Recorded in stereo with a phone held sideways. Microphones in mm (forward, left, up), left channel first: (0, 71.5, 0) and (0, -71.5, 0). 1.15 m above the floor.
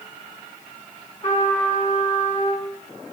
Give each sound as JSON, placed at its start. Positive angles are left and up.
{"t": 1.2, "sound": "a trumpet", "side_deg": 50, "distance_m": 3.5}